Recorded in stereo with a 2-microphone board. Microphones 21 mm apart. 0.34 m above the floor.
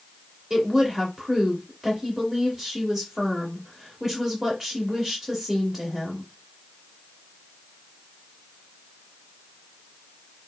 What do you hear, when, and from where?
0.5 s a woman speaking: 15° right (ahead or behind), 1.4 m